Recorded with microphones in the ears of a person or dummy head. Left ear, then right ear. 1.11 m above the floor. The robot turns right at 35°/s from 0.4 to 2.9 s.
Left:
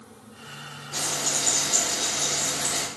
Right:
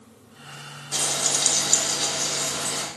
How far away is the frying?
About 1.0 m.